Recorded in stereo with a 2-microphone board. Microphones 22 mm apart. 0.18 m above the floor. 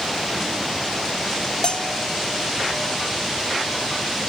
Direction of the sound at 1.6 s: 45° left (ahead or behind).